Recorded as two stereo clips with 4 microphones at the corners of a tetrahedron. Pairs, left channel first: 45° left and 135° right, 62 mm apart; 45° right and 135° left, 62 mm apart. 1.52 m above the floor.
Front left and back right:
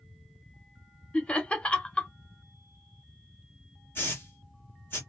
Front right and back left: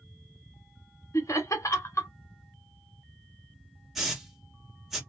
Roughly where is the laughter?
Ahead right.